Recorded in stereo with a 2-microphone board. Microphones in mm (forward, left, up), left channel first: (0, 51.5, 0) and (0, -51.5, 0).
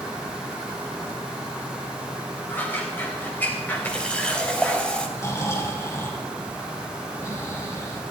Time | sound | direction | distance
2.5 | scissors | 15° left (ahead or behind) | 4.5 m
3.9 | a running tap | 10° left (ahead or behind) | 3 m
5.2 | snoring | 30° left (ahead or behind) | 5 m